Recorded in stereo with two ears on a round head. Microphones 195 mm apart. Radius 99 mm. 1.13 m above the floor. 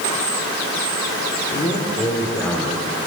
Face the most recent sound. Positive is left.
turn(degrees=10)  # may be behind; listen again after turning